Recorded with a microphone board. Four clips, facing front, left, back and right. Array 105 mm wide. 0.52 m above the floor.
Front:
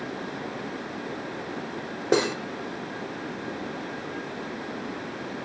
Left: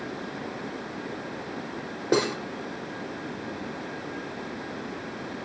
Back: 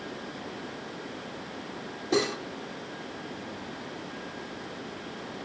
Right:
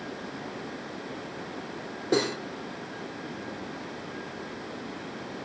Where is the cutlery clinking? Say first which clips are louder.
Left 2 dB, front 4 dB; 25° left, 1.2 m.